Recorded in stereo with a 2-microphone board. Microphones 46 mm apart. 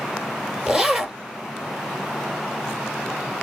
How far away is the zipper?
About 1.6 m.